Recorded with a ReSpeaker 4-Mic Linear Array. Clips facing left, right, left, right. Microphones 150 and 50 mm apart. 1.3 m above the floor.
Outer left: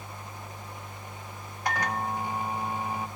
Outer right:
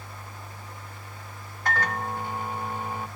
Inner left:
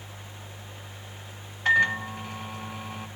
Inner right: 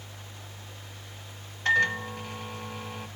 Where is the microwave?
15° left (ahead or behind), 0.9 m.